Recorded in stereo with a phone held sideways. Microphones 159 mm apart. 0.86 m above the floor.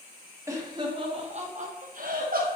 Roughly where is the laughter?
Centre.